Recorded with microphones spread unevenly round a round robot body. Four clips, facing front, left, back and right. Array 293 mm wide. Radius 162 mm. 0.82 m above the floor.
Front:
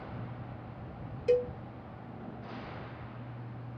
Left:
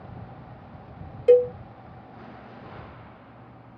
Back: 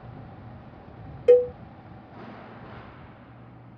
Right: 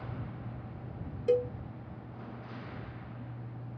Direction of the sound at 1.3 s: 145° left.